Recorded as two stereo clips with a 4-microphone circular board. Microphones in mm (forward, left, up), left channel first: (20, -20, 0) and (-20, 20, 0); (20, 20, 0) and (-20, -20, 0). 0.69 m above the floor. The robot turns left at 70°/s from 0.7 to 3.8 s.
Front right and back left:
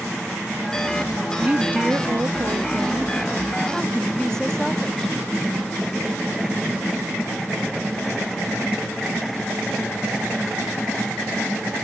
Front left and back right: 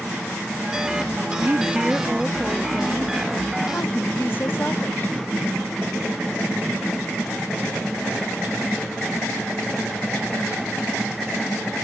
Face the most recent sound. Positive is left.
turn(degrees=30)